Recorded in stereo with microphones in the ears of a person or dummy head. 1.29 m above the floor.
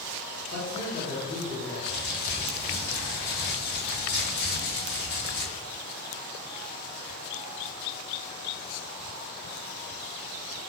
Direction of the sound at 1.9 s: 45° left (ahead or behind).